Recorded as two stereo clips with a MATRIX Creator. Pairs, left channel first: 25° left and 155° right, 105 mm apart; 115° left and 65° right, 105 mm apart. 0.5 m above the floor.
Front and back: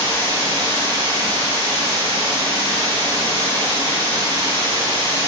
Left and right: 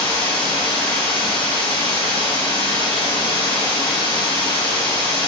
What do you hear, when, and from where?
0.0 s running water: 80° left, 1.9 m